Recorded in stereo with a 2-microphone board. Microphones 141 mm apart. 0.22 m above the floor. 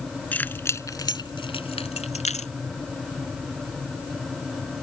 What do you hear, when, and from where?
0.3 s keys jangling: 10° left (ahead or behind); by 2.5 s 65° left (ahead or behind)